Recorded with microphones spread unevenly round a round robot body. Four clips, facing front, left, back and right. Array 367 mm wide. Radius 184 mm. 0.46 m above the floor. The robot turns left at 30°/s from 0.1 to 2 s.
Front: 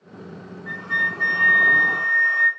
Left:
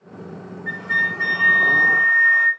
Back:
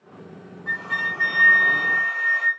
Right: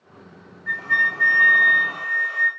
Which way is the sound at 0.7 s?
140° left.